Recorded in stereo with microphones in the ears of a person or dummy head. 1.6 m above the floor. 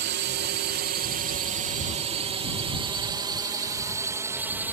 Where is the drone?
55° right (ahead or behind); by 4.7 s 10° right (ahead or behind).